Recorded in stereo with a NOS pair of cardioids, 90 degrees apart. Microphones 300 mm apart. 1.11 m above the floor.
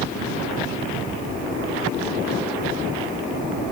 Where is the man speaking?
I don't hear a man speaking.